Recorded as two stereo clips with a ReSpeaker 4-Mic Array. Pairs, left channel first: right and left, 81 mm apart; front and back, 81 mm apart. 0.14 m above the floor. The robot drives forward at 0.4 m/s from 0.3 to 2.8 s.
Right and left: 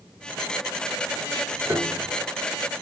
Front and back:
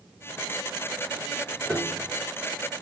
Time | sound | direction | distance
1.7 | a piano | 70° left | 1.6 m